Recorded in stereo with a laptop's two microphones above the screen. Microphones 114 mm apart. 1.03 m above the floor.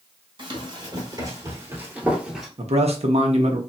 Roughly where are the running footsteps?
Right.